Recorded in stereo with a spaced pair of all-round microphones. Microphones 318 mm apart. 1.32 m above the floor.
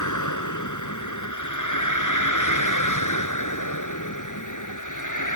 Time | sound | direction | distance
0.0 | a vehicle | 65° left (ahead or behind) | ?